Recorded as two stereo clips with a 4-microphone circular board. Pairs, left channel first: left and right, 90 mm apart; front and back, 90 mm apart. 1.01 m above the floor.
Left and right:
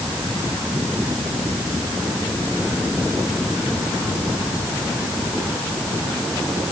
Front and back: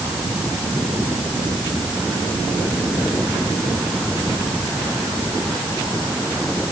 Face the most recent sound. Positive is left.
No sound to turn to.